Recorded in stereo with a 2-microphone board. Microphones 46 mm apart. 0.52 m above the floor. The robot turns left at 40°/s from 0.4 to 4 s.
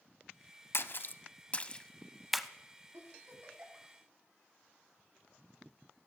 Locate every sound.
0.7 s a splash: 55° left (ahead or behind), 0.6 m; by 2.5 s 5° right (ahead or behind), 0.6 m
2.9 s a giggle: 65° right (ahead or behind), 3 m; by 3.9 s 30° right (ahead or behind), 3 m